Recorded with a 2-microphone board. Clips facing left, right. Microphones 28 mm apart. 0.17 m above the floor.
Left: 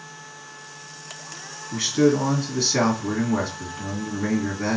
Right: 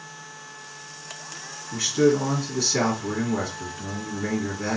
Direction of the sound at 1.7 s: 25° left (ahead or behind).